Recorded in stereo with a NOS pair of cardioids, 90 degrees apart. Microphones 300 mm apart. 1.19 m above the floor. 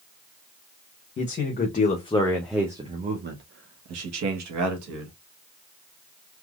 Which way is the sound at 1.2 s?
40° left.